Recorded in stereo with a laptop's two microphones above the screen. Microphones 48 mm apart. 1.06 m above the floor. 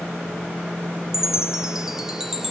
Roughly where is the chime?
Centre.